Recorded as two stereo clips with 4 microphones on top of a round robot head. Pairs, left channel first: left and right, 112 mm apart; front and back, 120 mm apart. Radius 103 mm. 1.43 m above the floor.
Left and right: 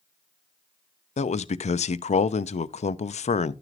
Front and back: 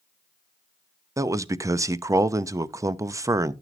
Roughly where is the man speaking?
Left.